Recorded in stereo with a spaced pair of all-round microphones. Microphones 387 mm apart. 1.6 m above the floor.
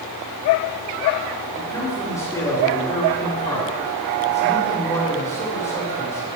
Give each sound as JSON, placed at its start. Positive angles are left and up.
{"t": 1.5, "sound": "a man speaking", "side_deg": 10, "distance_m": 5.0}